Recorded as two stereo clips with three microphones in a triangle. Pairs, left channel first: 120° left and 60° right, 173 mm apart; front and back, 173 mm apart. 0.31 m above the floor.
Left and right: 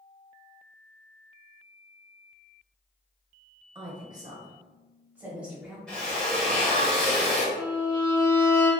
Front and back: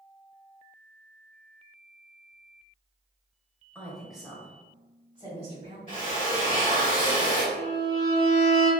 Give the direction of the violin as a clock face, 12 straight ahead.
8 o'clock.